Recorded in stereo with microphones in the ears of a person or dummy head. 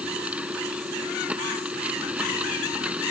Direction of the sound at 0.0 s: 10° right (ahead or behind).